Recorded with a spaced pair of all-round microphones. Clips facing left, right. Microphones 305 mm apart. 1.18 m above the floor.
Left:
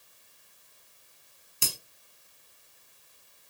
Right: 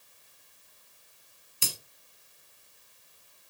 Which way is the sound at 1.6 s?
55° left (ahead or behind).